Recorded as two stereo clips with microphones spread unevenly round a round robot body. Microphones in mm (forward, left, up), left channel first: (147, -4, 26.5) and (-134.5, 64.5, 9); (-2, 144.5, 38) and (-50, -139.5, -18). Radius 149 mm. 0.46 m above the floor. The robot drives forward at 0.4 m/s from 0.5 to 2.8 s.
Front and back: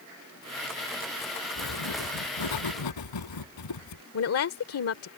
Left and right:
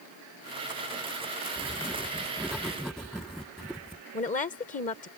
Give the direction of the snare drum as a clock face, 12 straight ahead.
I don't hear a snare drum.